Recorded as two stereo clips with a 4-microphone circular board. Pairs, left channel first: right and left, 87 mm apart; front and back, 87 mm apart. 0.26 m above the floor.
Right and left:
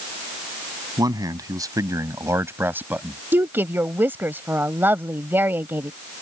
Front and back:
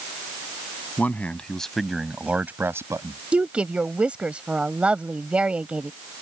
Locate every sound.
1.0 s a man speaking: 65° left; by 3.2 s 160° left
3.3 s a woman speaking: 120° left